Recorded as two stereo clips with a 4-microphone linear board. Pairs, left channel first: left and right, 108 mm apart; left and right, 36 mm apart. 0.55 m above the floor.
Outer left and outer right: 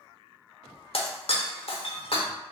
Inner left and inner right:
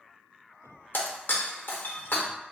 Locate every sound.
0.9 s breaking glass: 60° left (ahead or behind), 0.8 m